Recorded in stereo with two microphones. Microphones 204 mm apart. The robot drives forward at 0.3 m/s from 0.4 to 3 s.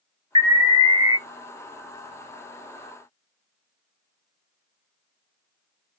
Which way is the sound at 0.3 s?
20° right (ahead or behind).